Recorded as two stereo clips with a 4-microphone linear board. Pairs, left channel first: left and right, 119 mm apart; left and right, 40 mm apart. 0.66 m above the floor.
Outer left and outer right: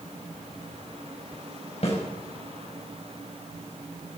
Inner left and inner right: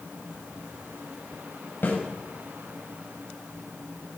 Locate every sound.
1.8 s a snare drum: 60° left (ahead or behind), 5 m